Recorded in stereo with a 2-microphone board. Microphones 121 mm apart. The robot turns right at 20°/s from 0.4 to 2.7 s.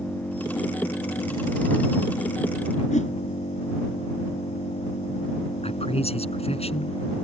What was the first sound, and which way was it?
An engine running, 10° left.